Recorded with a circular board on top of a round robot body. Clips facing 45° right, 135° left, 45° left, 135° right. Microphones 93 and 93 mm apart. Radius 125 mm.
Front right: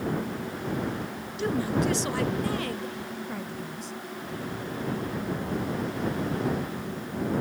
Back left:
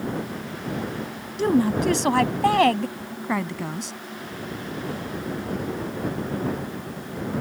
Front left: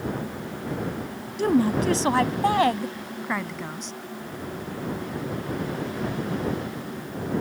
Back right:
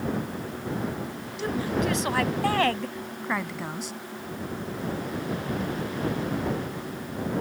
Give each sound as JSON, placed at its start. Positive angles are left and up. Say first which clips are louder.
{"t": 1.4, "sound": "a woman speaking", "louder": "back left 6 dB, front left 6 dB", "azimuth_deg": 90}